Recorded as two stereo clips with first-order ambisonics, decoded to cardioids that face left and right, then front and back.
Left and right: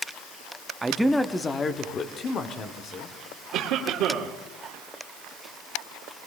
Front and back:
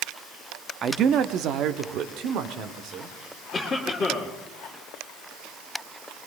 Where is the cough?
70° right, 1.7 m.